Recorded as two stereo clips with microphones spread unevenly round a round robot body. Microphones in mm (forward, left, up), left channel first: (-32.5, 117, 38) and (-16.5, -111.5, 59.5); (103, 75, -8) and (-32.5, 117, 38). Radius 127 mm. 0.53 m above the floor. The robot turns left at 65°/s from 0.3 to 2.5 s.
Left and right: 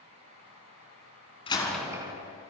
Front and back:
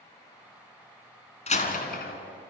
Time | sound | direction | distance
1.5 | a door slam | 25° left | 3.5 m